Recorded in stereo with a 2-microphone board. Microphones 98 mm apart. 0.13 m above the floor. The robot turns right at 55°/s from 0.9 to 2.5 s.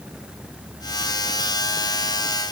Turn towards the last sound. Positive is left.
No sound to turn to.